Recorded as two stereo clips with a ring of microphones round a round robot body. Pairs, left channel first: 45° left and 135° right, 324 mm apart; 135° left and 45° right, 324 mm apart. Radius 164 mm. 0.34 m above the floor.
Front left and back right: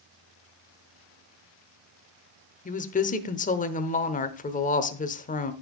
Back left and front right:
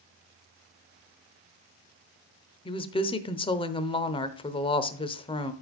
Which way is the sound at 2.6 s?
80° left.